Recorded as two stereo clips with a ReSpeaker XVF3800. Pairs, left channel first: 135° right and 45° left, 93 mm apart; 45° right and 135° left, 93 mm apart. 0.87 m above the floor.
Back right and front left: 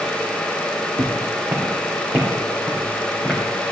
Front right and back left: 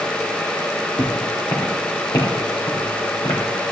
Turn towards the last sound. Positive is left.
turn(degrees=-35)